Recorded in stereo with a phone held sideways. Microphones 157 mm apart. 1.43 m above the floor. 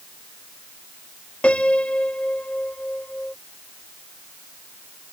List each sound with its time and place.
1.4 s a piano: 10° left (ahead or behind)